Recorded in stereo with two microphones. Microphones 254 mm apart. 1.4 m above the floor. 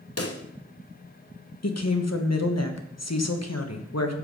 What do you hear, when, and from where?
0.2 s a pop: 65° left (ahead or behind), 1.0 m
1.6 s a woman speaking: 85° left, 1.3 m